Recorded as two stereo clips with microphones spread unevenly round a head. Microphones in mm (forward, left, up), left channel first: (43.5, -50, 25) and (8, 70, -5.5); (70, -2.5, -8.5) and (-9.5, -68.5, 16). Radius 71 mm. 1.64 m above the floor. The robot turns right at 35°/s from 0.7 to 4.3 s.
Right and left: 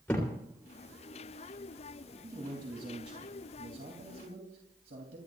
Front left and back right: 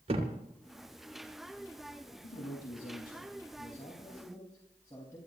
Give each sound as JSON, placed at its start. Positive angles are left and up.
{"t": 0.1, "sound": "a thud", "azimuth_deg": -150, "distance_m": 2.5}
{"t": 2.2, "sound": "a man speaking", "azimuth_deg": 35, "distance_m": 3.0}